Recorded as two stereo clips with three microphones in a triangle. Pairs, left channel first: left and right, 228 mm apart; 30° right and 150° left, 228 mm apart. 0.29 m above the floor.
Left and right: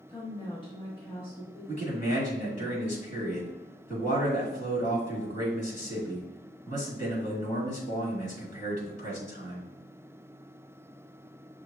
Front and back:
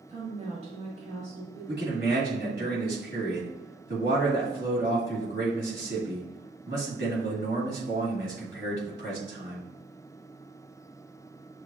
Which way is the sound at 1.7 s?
135° left.